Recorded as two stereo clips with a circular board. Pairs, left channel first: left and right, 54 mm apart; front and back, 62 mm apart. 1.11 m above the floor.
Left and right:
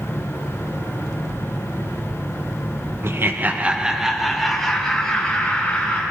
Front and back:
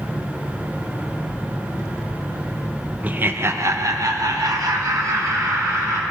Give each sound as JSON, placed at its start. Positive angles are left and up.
{"t": 3.0, "sound": "laughter", "azimuth_deg": -115, "distance_m": 1.0}